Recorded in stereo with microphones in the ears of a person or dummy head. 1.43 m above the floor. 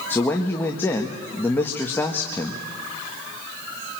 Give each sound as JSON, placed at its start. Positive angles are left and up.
{"t": 0.1, "sound": "a man speaking", "side_deg": 15, "distance_m": 1.6}